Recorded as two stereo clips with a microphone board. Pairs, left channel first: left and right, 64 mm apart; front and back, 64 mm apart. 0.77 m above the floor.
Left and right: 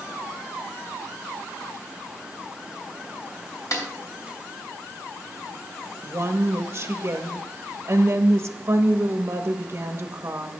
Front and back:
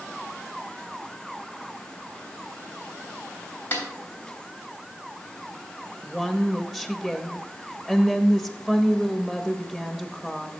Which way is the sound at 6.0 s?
95° right.